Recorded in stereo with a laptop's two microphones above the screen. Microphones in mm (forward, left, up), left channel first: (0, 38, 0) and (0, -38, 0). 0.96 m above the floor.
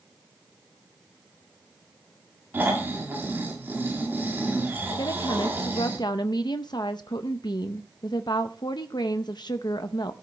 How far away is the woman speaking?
About 0.7 m.